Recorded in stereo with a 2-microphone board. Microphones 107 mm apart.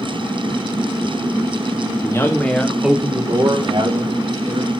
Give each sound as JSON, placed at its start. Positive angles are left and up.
{"t": 2.0, "sound": "a man speaking", "side_deg": 30, "distance_m": 1.8}